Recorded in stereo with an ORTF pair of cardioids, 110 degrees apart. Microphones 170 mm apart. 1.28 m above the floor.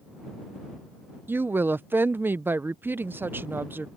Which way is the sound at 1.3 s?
15° right.